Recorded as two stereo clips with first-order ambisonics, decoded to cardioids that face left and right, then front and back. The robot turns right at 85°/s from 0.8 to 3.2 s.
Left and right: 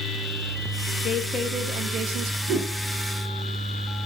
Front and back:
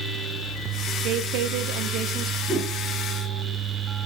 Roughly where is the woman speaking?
Behind left.